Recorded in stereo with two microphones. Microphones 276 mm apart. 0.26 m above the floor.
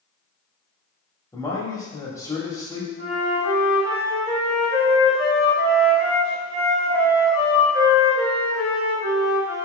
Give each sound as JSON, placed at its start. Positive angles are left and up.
{"t": 1.3, "sound": "a man speaking", "side_deg": 10, "distance_m": 0.9}
{"t": 3.0, "sound": "a flute", "side_deg": 55, "distance_m": 1.4}